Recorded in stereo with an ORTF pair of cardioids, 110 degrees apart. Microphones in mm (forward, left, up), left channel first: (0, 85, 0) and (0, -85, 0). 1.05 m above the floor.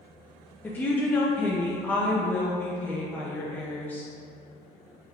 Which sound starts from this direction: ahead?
A woman speaking, at 0.6 s.